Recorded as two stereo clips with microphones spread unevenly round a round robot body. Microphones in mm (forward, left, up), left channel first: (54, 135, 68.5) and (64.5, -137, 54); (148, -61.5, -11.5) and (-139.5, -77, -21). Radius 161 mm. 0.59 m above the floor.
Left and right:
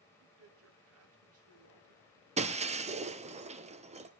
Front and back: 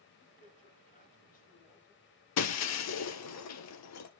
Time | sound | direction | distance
0.2 | a man speaking | 60° right | 3 m
2.4 | breaking glass | 20° right | 1.2 m